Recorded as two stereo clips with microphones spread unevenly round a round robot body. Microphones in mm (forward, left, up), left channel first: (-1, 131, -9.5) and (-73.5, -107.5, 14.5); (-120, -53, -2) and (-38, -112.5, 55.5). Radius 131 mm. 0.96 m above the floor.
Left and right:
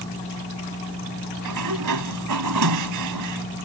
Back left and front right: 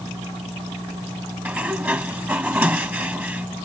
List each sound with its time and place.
1.4 s a sliding door: 110° right